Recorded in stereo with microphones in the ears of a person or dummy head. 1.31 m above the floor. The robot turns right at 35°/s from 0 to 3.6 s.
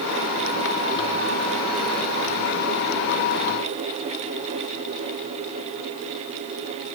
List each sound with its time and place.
Only background noise.